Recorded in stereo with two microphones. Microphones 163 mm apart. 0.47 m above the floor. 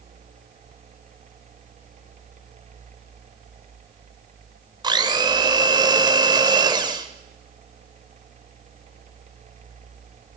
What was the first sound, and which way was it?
A blender, 25° right (ahead or behind).